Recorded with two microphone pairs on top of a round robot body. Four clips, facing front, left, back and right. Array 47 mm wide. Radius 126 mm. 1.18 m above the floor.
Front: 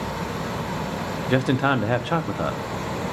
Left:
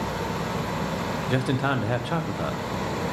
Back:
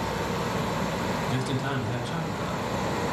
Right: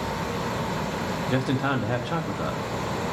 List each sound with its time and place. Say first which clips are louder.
1.3 s a man speaking: even, front 8 dB; 5° left, 0.8 m